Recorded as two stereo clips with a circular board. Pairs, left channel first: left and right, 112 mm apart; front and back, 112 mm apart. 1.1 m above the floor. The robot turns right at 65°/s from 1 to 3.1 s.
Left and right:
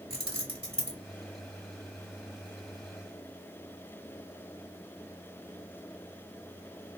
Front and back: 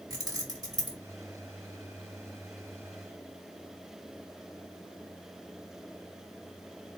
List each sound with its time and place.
0.1 s keys jangling: 125° right, 1.3 m